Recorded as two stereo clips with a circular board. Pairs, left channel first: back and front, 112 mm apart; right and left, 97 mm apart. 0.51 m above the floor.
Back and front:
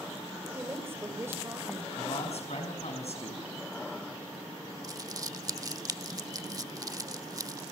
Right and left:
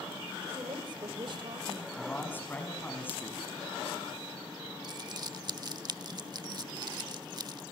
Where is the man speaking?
160° right, 5 m.